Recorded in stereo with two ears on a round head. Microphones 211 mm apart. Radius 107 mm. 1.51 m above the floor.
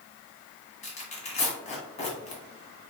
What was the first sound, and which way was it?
Tearing paper, 30° left (ahead or behind).